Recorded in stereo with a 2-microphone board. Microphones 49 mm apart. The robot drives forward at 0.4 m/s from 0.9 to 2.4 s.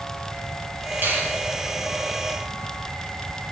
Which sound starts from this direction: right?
A finger snap, at 1.0 s.